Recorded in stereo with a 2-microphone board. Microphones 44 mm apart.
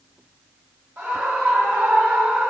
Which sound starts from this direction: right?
A scream, at 1.0 s.